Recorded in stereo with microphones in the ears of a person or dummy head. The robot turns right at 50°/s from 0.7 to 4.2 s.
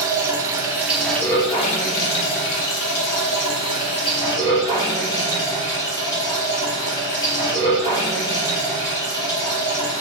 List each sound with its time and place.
0.0 s running water: 10° right, 0.8 m; by 10.0 s 165° left, 0.8 m